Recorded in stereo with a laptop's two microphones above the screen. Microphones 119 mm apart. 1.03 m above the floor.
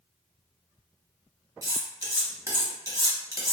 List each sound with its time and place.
1.6 s cutlery clinking: 25° right (ahead or behind), 1.2 m